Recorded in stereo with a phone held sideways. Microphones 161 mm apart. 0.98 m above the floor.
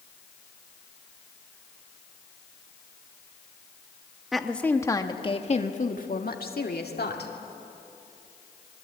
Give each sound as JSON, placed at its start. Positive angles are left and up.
{"t": 4.3, "sound": "a woman speaking", "side_deg": 0, "distance_m": 1.6}